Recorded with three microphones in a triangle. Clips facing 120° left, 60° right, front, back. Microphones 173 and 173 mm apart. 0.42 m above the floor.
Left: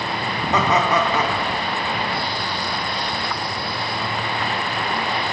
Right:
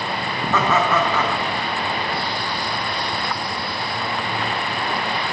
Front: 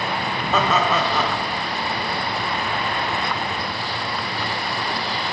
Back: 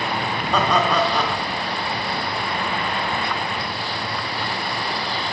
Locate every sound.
0.5 s laughter: 80° left, 0.8 m